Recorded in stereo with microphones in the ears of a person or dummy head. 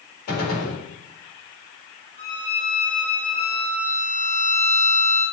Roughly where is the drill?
I don't hear a drill.